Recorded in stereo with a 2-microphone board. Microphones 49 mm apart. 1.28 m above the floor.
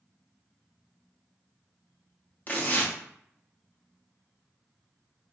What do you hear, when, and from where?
2.5 s tearing paper: 35° left (ahead or behind), 0.7 m